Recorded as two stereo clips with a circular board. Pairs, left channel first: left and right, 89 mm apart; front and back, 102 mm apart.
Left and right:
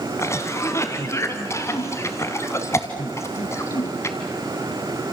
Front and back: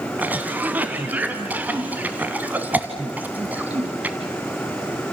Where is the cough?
115° left, 1.3 m.